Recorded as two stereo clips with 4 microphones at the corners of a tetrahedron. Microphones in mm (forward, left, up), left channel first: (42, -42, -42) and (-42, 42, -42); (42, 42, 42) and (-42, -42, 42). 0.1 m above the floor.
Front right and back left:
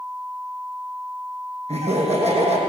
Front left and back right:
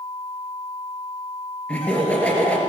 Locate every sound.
1.7 s laughter: 120° left, 3 m